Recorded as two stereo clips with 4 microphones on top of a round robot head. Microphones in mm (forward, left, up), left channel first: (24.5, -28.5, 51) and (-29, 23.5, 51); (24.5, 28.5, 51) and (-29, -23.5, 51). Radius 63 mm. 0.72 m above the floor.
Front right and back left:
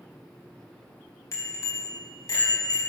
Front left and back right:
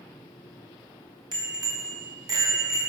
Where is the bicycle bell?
95° right, 4 m; by 2.8 s 85° right, 4.5 m.